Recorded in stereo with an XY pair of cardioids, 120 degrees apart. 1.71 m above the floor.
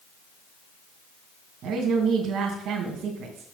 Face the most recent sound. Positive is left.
turn(degrees=-60)